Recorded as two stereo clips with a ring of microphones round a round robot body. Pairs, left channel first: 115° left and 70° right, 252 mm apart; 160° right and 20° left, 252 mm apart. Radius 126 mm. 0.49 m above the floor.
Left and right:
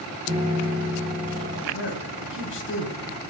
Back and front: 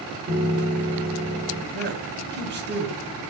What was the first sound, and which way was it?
A piano, 10° right.